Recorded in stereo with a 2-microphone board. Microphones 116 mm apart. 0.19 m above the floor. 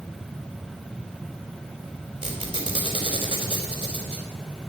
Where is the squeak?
45° right (ahead or behind), 3.5 m.